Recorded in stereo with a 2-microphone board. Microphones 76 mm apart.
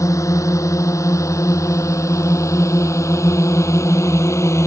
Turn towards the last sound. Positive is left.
turn(degrees=40)  # may be behind; listen again after turning